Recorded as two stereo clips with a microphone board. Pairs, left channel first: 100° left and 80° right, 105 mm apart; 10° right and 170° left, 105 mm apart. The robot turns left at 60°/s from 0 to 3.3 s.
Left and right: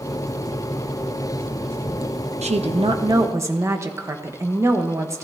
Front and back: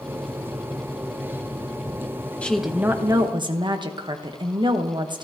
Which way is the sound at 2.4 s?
90° right.